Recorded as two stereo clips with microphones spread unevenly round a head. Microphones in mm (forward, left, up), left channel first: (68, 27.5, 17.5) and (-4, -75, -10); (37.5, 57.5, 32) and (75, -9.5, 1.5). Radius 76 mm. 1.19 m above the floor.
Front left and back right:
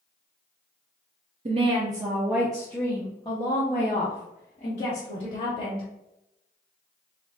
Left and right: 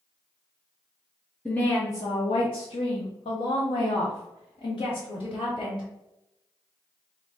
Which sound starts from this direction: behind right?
A woman speaking, at 1.4 s.